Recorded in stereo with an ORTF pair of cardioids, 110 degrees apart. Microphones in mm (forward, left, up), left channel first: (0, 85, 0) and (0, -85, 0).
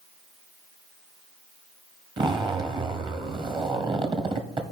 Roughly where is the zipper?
Ahead right.